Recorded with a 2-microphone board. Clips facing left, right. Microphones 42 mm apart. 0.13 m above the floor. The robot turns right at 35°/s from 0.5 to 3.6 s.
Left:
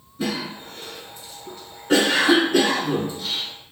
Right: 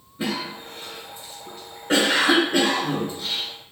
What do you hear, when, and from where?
0.2 s a cough: 20° right (ahead or behind), 1.1 m; by 3.5 s 5° left (ahead or behind), 1.1 m